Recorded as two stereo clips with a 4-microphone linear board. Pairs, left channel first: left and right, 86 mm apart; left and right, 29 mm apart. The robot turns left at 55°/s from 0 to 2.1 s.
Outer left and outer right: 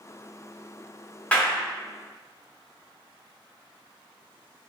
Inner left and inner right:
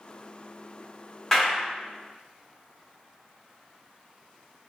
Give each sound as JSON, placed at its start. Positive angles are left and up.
{"t": 1.3, "sound": "a clap", "side_deg": 15, "distance_m": 0.8}